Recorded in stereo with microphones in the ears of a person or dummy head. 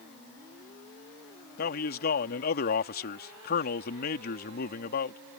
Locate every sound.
1.6 s a man speaking: 45° left (ahead or behind)